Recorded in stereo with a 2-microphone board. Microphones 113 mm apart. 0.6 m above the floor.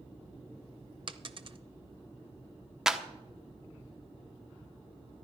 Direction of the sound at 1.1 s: 50° right (ahead or behind).